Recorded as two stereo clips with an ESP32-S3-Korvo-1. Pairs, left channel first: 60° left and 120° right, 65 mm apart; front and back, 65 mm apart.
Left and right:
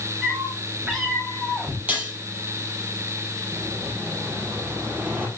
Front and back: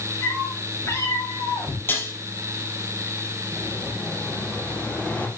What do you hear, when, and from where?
0.2 s a cat meowing: 35° right, 9 m; by 1.8 s 40° right, 8.5 m
1.9 s dishes clattering: 55° right, 4 m
3.5 s an explosion: 60° right, 5.5 m